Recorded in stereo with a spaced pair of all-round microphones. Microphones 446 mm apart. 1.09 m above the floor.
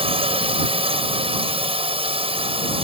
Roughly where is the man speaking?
I don't hear a man speaking.